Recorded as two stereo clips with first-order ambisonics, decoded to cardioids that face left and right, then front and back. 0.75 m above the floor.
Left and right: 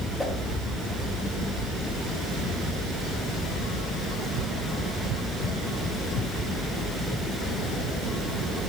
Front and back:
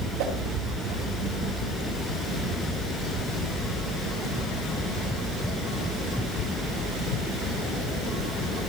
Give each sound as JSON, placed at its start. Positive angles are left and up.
{"t": 0.2, "sound": "a whoosh", "azimuth_deg": 175, "distance_m": 2.0}